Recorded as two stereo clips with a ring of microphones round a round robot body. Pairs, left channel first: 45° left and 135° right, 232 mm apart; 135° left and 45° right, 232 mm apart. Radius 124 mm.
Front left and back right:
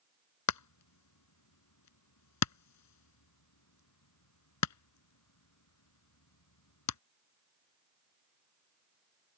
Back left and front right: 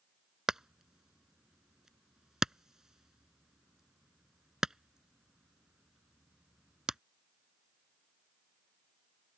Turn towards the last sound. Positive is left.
turn(degrees=45)